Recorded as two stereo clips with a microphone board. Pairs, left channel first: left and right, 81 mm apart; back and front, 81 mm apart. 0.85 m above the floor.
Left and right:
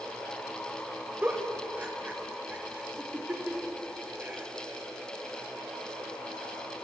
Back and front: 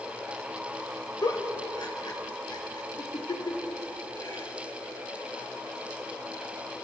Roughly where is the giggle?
Behind.